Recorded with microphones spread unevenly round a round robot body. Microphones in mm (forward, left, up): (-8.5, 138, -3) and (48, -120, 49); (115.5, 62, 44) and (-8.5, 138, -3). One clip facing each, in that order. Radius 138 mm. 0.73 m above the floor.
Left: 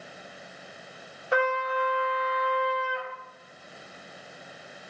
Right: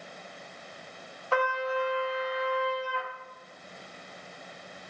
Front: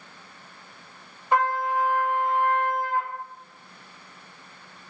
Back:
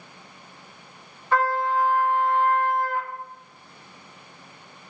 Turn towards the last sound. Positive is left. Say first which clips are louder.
# left 2 dB, back 1 dB
turn(degrees=55)